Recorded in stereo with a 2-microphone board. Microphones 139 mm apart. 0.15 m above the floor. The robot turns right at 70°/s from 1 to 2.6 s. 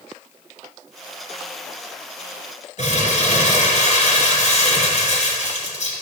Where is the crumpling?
55° left (ahead or behind), 2 m.